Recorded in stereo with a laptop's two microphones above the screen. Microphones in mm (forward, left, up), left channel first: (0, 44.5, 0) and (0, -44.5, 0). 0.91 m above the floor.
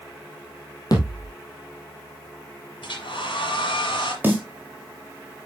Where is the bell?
I don't hear a bell.